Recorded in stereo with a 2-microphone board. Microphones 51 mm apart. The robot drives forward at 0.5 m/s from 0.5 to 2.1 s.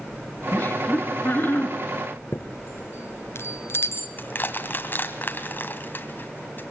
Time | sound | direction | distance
0.5 | laughter | 35° left (ahead or behind) | 3.5 m
2.3 | a chime | 55° left (ahead or behind) | 2.0 m
4.2 | crushing | 40° left (ahead or behind) | 1.9 m